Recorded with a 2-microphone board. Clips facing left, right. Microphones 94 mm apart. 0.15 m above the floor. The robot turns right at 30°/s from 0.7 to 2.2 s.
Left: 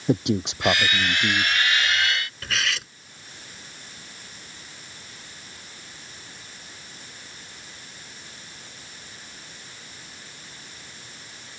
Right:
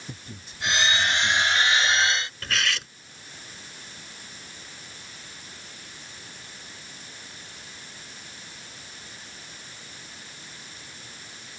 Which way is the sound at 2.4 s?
Centre (ahead or behind).